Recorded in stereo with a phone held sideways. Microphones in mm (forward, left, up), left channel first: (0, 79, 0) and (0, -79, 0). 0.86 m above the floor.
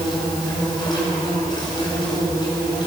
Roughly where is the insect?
Left.